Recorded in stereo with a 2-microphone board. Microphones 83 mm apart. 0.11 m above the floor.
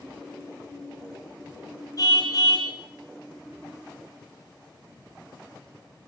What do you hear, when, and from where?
2.0 s a car horn: 50° left (ahead or behind), 4 m